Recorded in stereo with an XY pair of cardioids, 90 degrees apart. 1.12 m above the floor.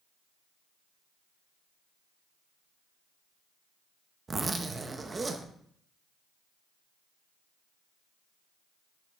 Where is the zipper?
30° right, 0.8 m.